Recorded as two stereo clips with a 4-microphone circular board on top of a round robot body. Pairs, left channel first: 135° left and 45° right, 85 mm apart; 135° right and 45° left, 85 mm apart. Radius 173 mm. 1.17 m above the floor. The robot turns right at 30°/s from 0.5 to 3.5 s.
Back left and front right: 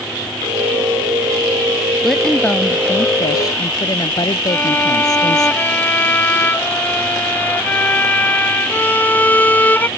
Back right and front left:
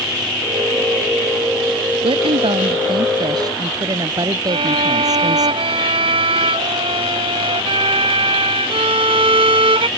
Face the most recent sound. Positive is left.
turn(degrees=65)